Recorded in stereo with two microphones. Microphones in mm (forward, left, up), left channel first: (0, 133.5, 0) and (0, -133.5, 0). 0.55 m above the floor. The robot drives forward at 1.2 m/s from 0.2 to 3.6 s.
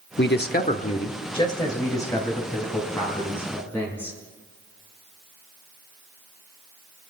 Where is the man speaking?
40° left (ahead or behind), 0.8 m; by 4.2 s 5° left (ahead or behind), 4.5 m.